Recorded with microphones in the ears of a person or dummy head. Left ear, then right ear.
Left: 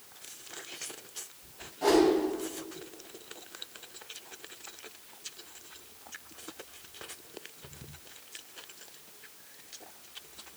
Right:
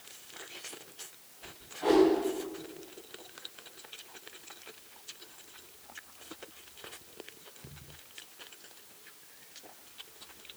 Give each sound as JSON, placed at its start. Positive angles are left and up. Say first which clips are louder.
{"t": 1.8, "sound": "a whoosh", "louder": "even", "side_deg": 75, "distance_m": 4.0}